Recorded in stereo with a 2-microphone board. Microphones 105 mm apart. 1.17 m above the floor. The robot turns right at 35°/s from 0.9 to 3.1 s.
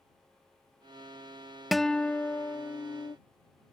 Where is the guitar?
Straight ahead; by 3.2 s 50° left.